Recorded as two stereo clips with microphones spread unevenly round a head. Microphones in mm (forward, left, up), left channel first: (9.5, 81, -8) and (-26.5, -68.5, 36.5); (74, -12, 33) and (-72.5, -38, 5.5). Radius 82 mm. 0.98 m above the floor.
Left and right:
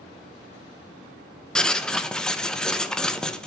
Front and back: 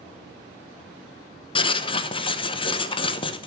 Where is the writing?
40° left, 0.8 m.